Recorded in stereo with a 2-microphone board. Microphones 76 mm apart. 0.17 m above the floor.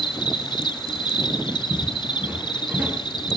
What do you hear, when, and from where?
0.0 s an insect: 75° left (ahead or behind), 1.0 m
1.7 s footsteps: 15° right (ahead or behind), 7 m; by 3.4 s 25° right (ahead or behind), 6 m